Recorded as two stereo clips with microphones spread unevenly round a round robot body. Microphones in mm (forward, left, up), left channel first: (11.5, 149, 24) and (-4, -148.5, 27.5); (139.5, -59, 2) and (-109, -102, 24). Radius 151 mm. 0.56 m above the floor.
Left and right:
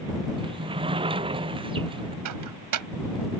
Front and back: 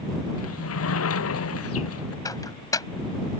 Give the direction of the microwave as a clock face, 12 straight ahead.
2 o'clock.